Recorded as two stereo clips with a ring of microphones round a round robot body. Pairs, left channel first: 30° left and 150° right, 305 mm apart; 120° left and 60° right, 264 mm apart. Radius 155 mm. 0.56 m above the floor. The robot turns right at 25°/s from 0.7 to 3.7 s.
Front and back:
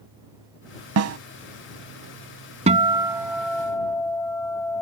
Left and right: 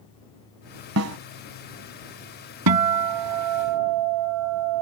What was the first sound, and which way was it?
A snare drum, 105° right.